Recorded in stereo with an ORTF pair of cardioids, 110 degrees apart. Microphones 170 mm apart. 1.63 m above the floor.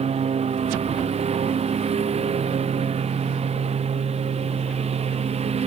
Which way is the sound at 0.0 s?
40° right.